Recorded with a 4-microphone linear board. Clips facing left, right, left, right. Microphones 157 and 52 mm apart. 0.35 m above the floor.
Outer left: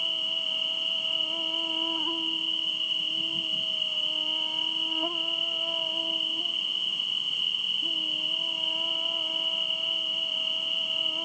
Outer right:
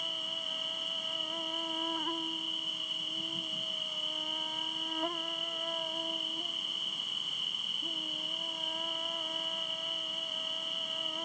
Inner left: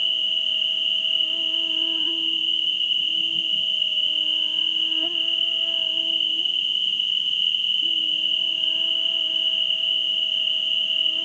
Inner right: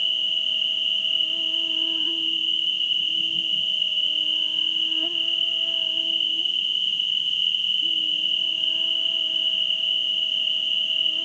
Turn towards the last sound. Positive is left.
turn(degrees=10)  # may be behind; listen again after turning